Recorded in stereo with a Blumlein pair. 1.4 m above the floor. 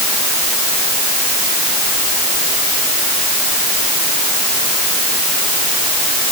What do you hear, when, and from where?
Only background noise.